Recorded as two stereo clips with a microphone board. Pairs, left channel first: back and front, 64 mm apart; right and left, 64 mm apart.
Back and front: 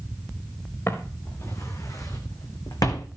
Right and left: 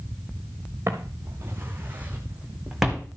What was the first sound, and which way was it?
Footsteps, 135° left.